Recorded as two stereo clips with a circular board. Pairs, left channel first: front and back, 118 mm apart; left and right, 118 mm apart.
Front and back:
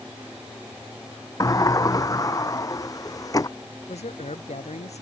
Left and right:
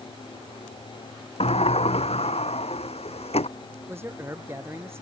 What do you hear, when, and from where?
1.4 s a sliding door: 60° left
3.9 s a man speaking: 20° right